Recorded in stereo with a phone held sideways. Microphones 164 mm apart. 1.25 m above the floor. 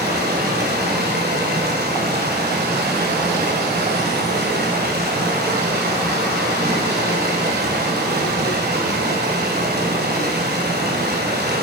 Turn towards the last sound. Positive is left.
turn(degrees=-65)  # may be behind; listen again after turning